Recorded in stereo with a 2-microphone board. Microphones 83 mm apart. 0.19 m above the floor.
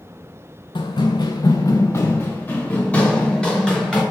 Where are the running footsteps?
75° left (ahead or behind), 0.7 m; by 4.0 s 5° left (ahead or behind), 1.7 m.